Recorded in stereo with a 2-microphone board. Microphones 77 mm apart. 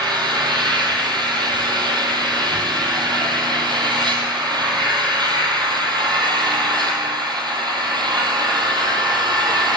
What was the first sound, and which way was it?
An engine running, 65° right (ahead or behind).